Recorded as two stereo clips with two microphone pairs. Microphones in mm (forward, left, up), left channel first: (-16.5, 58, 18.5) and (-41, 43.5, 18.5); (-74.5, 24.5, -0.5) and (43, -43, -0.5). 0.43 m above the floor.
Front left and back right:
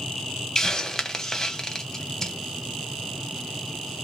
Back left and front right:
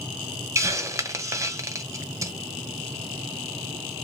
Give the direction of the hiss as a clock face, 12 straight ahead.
12 o'clock.